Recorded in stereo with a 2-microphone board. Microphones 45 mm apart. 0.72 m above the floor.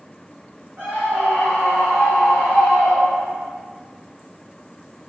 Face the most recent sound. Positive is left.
turn(degrees=-25)  # may be behind; listen again after turning